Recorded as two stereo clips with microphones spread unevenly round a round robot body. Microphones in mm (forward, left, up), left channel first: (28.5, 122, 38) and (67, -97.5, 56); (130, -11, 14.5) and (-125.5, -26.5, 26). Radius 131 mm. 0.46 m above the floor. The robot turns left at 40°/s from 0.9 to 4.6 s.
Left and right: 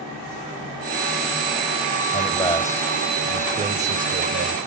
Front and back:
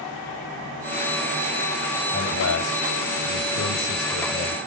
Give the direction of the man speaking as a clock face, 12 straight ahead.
10 o'clock.